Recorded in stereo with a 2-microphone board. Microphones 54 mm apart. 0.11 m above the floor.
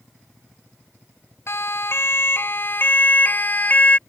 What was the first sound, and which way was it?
A siren, 50° left (ahead or behind).